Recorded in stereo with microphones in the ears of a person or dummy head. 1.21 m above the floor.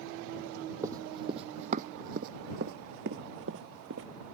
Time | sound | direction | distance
0.8 | running footsteps | 20° right (ahead or behind) | ?